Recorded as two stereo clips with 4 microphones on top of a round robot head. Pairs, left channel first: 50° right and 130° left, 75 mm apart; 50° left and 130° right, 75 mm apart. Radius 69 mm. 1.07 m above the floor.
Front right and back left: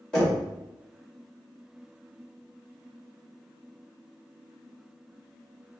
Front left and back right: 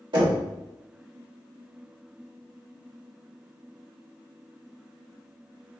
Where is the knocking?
125° right, 1.8 m.